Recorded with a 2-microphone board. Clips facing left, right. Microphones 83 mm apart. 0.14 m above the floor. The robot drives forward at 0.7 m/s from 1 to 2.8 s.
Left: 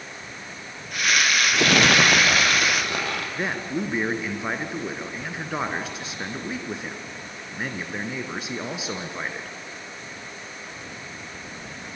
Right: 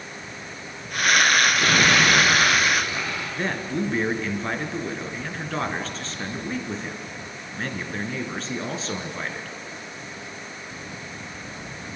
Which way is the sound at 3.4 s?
10° left (ahead or behind).